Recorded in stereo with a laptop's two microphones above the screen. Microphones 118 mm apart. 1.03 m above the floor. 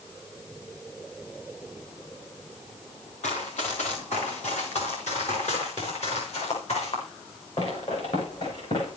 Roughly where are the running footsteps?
Left.